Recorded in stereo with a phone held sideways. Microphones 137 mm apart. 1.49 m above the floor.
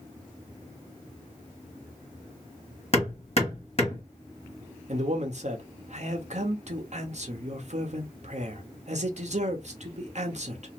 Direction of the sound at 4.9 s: 60° right (ahead or behind).